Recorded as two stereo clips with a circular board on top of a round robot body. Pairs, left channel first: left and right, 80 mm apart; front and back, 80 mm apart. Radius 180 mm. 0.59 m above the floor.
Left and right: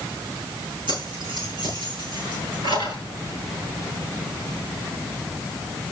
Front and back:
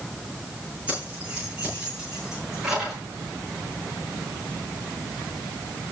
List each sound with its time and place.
0.9 s keys jangling: 105° right, 9 m; by 3.0 s 95° right, 9 m